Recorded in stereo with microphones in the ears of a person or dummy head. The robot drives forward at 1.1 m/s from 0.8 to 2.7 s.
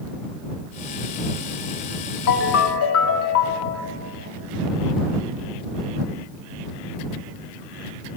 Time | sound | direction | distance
2.3 | a ringtone | 65° left (ahead or behind) | 1.6 m